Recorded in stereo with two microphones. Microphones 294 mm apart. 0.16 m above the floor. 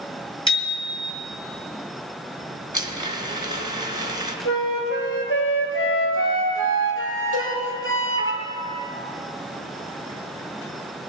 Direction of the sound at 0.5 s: 15° left (ahead or behind).